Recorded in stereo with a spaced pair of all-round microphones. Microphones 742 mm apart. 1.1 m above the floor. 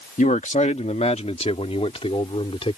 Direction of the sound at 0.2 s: 10° left (ahead or behind).